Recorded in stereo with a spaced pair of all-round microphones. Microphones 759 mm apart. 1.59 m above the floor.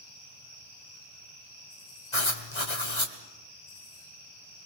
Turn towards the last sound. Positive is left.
turn(degrees=40)  # may be behind; listen again after turning